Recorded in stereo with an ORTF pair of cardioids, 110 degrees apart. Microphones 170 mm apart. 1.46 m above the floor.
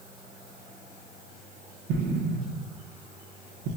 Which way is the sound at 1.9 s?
70° right.